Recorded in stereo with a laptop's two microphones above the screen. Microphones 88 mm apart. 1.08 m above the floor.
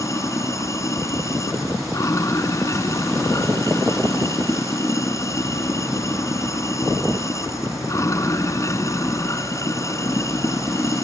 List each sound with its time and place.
0.0 s running water: 35° left (ahead or behind)